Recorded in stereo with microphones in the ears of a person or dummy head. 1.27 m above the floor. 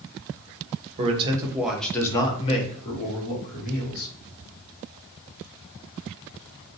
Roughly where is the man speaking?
Right.